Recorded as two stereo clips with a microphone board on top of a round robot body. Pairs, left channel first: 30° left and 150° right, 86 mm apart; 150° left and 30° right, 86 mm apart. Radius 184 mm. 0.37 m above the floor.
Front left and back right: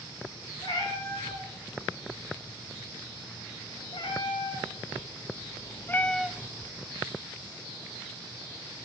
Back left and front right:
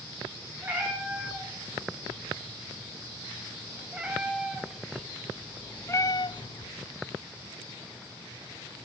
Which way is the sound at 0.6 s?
35° left.